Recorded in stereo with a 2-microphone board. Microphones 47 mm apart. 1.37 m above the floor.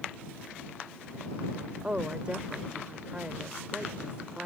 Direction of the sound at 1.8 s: 25° right (ahead or behind).